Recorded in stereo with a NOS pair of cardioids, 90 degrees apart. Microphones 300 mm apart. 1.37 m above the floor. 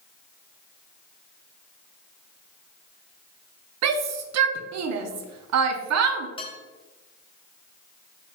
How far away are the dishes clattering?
About 1.1 m.